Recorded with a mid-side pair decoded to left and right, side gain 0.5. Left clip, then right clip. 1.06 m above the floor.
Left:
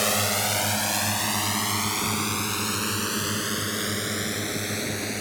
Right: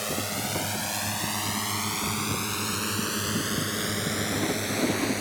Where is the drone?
50° left; by 5.2 s 5° left.